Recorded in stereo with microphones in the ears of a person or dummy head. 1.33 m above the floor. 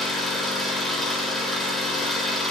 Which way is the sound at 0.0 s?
5° left (ahead or behind).